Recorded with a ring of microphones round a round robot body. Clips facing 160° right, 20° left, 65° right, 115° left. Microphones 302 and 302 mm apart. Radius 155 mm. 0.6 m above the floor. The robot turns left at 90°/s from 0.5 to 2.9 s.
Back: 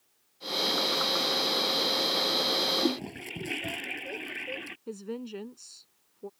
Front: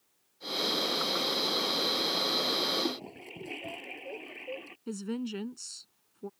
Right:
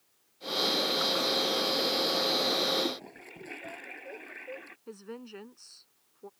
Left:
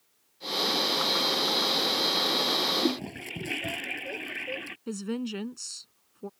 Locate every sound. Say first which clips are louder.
2.8 s a toilet flushing: back 6 dB, left 7 dB; 155° left; by 4.8 s 150° left
4.9 s a woman speaking: front 3 dB, left 11 dB; 80° left